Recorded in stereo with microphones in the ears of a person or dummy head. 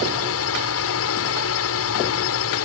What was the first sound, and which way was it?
A drone, 70° left (ahead or behind).